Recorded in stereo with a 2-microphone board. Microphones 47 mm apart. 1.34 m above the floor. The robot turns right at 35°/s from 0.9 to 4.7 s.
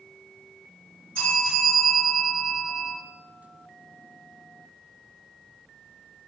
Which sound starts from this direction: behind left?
A bell, at 1.1 s.